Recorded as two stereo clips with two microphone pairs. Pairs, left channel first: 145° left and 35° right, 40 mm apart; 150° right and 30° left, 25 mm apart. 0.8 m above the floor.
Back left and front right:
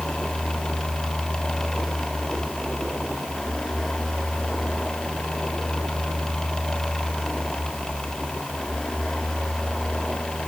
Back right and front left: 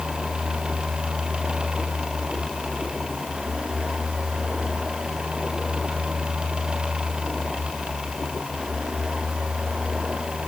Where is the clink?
No clink in this recording.